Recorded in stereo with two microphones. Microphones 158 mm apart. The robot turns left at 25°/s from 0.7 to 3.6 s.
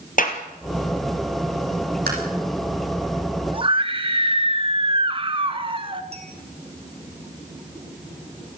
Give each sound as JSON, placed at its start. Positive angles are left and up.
{"t": 0.2, "sound": "a clap", "side_deg": 60, "distance_m": 3.5}
{"t": 2.1, "sound": "tapping", "side_deg": -75, "distance_m": 7.0}
{"t": 3.5, "sound": "a scream", "side_deg": -35, "distance_m": 1.2}
{"t": 6.1, "sound": "a clink", "side_deg": -40, "distance_m": 4.5}